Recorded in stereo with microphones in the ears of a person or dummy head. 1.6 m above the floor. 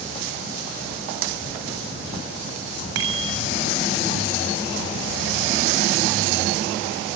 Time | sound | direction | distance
3.0 | a bicycle bell | 70° right (ahead or behind) | 7.5 m